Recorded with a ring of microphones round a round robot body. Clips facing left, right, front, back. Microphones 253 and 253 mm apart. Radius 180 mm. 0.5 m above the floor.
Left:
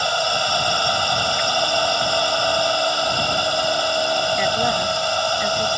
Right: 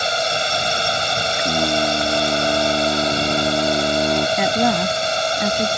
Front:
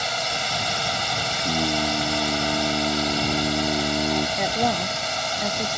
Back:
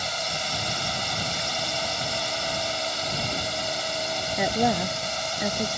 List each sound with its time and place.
0.0 s a drone: 25° right
1.4 s singing: 50° right
4.4 s a woman speaking: 95° right